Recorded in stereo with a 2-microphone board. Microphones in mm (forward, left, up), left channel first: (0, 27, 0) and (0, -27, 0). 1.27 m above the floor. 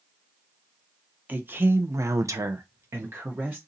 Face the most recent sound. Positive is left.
turn(degrees=-35)  # may be behind; listen again after turning